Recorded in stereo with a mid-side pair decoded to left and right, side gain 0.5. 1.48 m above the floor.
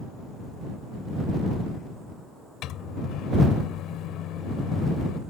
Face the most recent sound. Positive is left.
turn(degrees=70)